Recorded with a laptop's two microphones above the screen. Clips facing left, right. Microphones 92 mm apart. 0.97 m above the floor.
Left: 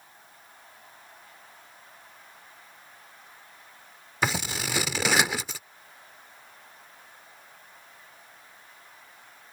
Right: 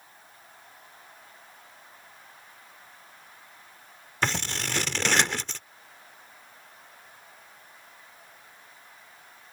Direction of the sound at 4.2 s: 5° left (ahead or behind).